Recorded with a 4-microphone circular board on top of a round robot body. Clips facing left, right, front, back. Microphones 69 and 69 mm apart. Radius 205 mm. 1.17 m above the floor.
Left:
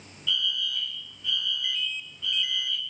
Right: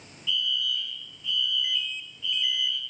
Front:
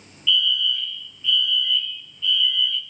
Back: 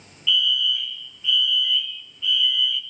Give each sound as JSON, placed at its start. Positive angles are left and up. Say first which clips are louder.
{"t": 0.3, "sound": "a fire alarm", "louder": "right 1 dB, even", "azimuth_deg": 100, "distance_m": 3.0}